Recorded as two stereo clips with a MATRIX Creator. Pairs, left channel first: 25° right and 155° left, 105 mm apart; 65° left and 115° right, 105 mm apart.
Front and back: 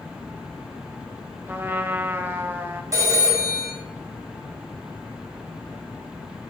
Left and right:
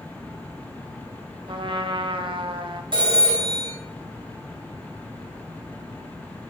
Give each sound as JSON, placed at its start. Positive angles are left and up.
{"t": 1.5, "sound": "a trumpet", "azimuth_deg": -135, "distance_m": 0.6}
{"t": 2.9, "sound": "a phone ringing", "azimuth_deg": -145, "distance_m": 4.0}